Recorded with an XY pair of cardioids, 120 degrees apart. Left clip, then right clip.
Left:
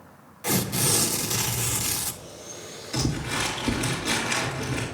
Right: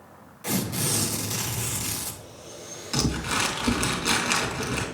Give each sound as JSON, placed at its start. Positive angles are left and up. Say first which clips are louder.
{"t": 0.4, "sound": "tearing paper", "louder": "left 3 dB", "azimuth_deg": 20, "distance_m": 0.7}
{"t": 2.9, "sound": "crumpling", "louder": "right 2 dB", "azimuth_deg": -55, "distance_m": 2.0}